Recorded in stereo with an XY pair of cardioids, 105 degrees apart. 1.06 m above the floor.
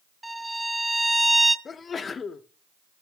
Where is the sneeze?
40° left, 0.8 m.